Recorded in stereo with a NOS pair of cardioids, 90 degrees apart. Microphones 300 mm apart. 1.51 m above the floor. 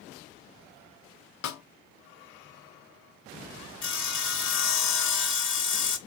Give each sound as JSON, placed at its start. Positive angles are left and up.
{"t": 1.4, "sound": "a snare drum", "azimuth_deg": 70, "distance_m": 0.8}
{"t": 3.8, "sound": "sawing", "azimuth_deg": 40, "distance_m": 1.1}